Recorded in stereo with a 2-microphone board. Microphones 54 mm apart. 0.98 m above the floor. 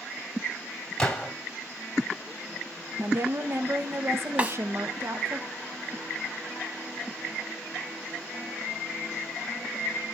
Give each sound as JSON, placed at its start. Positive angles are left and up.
{"t": 1.0, "sound": "a gunshot", "side_deg": 10, "distance_m": 2.5}
{"t": 3.0, "sound": "a woman speaking", "side_deg": -50, "distance_m": 1.0}
{"t": 4.4, "sound": "a snare drum", "side_deg": -25, "distance_m": 1.2}